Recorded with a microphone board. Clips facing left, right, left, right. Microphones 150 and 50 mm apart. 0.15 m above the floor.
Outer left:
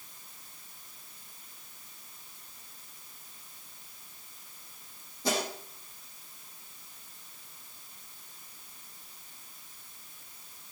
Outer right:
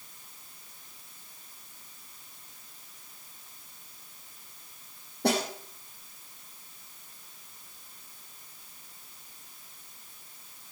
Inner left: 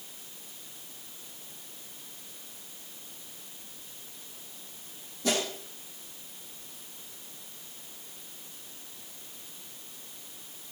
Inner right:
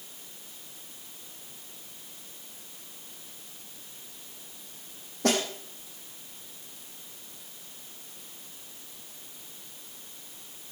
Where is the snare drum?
65° right (ahead or behind), 5.5 m.